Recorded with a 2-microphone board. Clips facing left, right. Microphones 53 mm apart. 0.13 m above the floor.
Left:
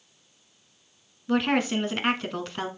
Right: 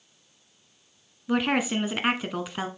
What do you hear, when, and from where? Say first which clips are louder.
1.3 s a woman speaking: left 1 dB; 5° right (ahead or behind), 1.1 m